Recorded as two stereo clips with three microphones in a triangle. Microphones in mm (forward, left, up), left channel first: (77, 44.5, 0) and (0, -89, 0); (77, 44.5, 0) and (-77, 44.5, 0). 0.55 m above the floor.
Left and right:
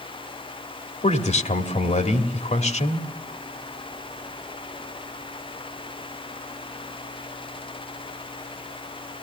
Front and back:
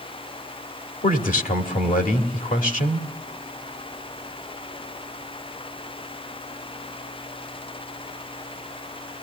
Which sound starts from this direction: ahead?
A man speaking, at 1.0 s.